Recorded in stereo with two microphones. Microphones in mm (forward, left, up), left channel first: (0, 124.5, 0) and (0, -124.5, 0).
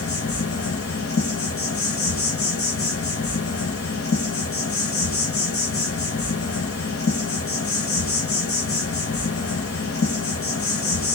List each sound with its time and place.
0.0 s an insect: 60° left (ahead or behind), 0.9 m